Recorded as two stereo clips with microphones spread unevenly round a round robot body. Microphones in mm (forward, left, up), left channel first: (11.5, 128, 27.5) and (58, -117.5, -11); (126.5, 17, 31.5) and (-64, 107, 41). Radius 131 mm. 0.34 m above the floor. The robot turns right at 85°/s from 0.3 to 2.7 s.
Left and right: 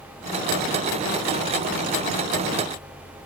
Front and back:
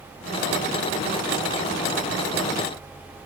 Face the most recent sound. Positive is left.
No sound to turn to.